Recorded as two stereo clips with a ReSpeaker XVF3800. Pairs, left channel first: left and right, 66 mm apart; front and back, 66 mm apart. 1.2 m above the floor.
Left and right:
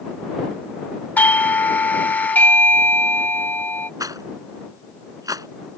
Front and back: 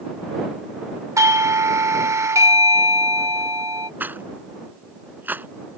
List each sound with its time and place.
1.2 s a doorbell: 150° left
4.0 s a rattle: 115° right